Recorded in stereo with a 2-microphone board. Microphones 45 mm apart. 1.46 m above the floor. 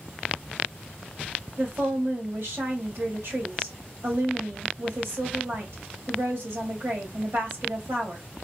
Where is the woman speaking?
70° right (ahead or behind), 1.5 m.